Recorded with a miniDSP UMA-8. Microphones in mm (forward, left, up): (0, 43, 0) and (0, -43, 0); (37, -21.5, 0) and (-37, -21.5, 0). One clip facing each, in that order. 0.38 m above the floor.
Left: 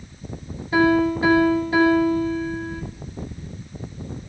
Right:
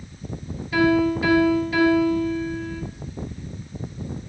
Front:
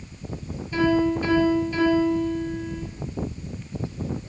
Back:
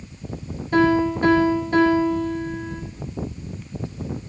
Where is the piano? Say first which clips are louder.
Left 1 dB, back 3 dB; 150° left, 7.5 m.